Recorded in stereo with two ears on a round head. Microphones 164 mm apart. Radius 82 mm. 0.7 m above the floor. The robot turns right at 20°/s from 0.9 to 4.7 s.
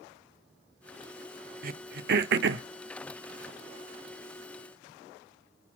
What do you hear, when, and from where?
1.6 s throat clearing: 50° right (ahead or behind), 0.6 m; by 2.6 s 70° right (ahead or behind), 0.6 m